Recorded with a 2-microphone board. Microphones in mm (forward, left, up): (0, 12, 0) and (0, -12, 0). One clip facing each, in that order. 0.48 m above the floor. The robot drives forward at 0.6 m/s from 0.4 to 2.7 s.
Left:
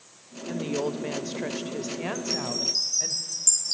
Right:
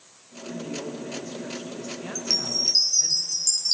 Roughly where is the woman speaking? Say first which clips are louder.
Left 5 dB; left.